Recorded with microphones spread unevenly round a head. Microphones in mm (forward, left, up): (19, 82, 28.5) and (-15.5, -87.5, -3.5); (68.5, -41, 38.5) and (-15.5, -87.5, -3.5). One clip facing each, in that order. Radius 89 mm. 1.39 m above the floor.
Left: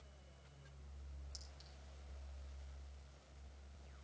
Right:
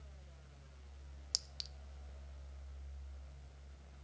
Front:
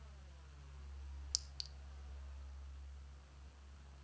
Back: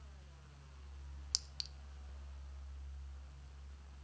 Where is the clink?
110° right, 0.6 m.